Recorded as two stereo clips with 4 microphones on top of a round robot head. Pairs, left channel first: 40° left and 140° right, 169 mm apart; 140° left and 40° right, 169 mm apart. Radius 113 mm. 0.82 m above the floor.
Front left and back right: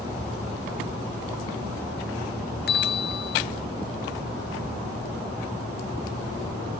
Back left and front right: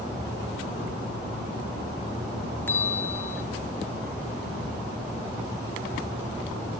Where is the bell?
60° left, 0.8 m.